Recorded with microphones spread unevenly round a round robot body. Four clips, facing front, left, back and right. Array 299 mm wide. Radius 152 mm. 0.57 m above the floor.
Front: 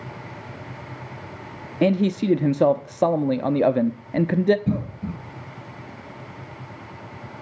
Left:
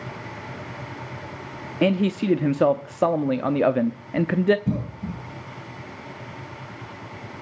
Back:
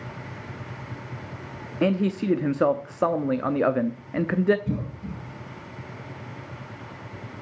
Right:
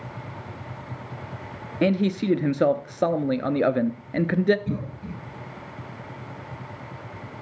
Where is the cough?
30° left, 4 m.